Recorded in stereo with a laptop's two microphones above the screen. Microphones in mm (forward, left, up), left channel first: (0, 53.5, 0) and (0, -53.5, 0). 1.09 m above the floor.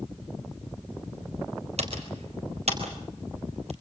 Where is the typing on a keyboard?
75° right (ahead or behind), 4 m.